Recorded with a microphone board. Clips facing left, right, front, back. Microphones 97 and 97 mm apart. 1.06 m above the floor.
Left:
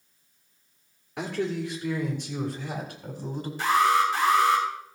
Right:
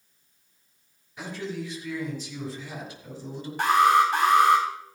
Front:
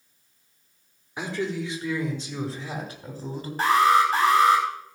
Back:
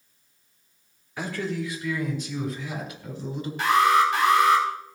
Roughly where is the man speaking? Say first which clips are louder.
Left 5 dB, front 1 dB; left.